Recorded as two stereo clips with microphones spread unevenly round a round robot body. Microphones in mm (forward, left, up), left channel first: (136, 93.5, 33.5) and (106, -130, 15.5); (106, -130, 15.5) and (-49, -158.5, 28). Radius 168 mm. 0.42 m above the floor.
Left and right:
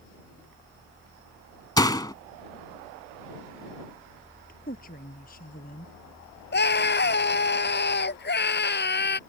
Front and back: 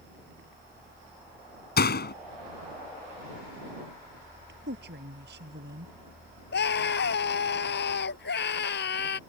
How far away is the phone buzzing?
I don't hear a phone buzzing.